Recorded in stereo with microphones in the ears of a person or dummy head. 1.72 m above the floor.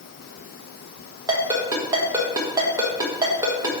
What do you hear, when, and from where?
1.3 s a ringtone: 20° right (ahead or behind), 1.5 m